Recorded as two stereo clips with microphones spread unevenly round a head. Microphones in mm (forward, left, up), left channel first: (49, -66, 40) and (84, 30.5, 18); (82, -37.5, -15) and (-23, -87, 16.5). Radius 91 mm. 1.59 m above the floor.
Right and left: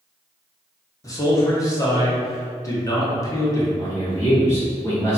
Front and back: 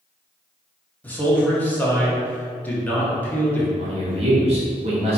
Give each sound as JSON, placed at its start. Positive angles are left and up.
{"t": 1.0, "sound": "a man speaking", "azimuth_deg": -50, "distance_m": 1.6}
{"t": 3.8, "sound": "a man speaking", "azimuth_deg": -175, "distance_m": 1.1}